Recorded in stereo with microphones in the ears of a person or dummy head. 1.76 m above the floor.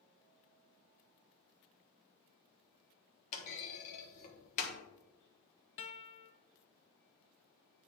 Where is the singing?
No singing in this recording.